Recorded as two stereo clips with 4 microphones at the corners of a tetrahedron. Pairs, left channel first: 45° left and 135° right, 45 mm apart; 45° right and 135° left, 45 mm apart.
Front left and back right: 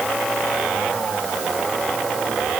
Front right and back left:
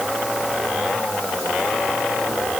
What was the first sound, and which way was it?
Only background noise.